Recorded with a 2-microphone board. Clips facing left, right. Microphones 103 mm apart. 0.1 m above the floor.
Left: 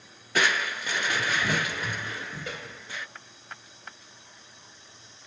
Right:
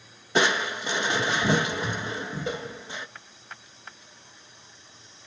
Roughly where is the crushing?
Right.